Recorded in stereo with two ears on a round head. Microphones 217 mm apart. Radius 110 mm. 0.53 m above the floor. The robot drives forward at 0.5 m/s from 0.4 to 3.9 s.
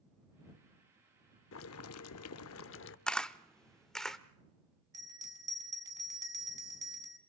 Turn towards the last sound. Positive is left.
turn(degrees=-15)  # may be behind; listen again after turning